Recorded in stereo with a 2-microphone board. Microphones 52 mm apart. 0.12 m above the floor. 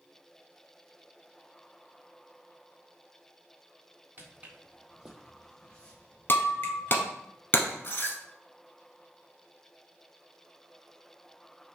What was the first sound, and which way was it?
Footsteps, 35° right (ahead or behind).